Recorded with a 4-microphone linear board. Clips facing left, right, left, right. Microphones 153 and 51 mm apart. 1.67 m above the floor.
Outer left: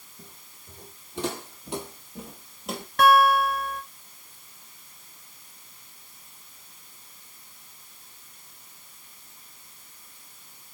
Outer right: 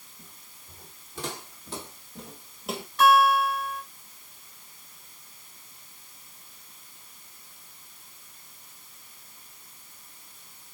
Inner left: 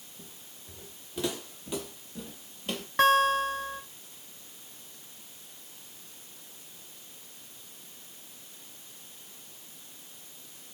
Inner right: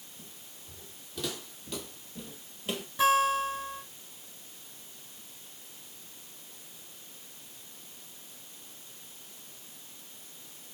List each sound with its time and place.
0.2 s footsteps: 30° left (ahead or behind), 5 m; by 2.9 s 5° right (ahead or behind), 2.5 m
3.0 s a guitar: 60° left (ahead or behind), 3.5 m